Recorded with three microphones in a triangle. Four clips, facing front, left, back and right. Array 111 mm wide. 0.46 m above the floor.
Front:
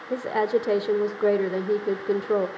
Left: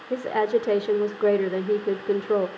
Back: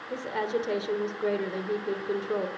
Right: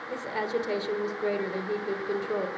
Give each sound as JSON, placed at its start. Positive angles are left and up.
{"t": 0.1, "sound": "a woman speaking", "azimuth_deg": 50, "distance_m": 1.1}